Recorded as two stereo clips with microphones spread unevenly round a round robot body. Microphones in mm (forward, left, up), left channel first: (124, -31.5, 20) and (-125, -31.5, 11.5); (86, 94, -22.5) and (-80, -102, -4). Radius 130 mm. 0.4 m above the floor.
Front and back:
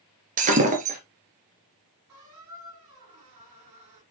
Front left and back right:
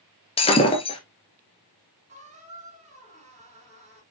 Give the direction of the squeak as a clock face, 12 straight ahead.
6 o'clock.